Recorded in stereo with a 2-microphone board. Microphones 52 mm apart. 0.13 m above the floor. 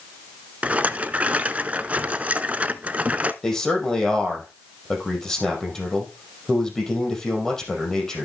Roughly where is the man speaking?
Centre.